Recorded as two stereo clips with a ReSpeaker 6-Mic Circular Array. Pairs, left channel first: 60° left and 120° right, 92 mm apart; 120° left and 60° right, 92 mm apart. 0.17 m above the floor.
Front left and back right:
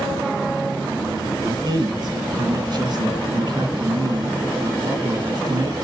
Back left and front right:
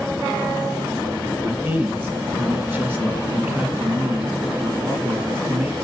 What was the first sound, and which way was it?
A man speaking, 120° right.